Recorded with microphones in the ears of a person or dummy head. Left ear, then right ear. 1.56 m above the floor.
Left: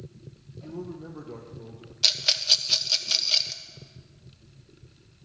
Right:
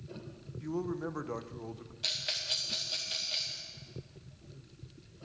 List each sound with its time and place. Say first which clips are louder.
0.6 s a man speaking: right 3 dB; 50° right (ahead or behind), 0.9 m
2.0 s a rattle: left 12 dB; 40° left (ahead or behind), 0.9 m